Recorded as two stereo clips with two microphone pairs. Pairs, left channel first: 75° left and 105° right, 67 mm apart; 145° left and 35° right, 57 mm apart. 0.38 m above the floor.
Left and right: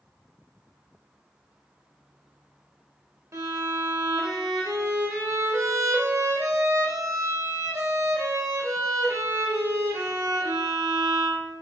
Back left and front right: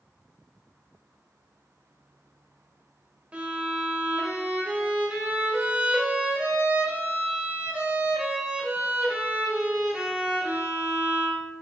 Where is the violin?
100° right, 0.9 m.